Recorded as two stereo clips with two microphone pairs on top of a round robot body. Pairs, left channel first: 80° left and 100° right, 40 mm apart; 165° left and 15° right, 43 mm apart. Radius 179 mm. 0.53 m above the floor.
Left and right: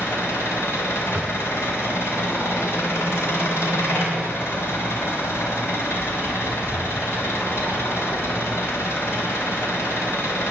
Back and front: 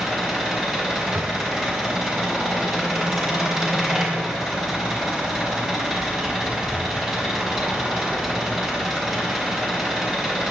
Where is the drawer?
55° right, 1.9 m.